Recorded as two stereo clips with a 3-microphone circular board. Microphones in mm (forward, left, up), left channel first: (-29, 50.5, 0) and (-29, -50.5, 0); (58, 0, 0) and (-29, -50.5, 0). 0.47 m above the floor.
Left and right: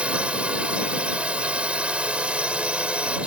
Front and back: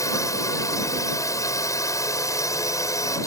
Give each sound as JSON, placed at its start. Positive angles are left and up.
{"t": 0.0, "sound": "a drone", "azimuth_deg": -15}